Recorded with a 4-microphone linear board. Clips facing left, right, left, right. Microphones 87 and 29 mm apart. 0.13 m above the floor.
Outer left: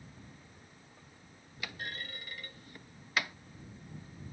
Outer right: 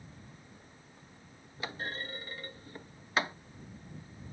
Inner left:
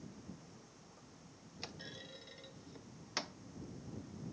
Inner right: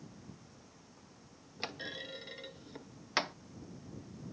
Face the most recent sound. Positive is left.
turn(degrees=-30)  # may be behind; listen again after turning